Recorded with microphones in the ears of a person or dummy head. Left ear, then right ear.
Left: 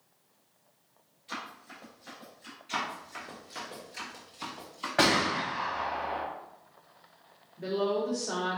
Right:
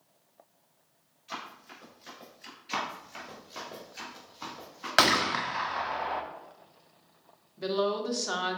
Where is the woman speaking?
50° right (ahead or behind), 0.9 m.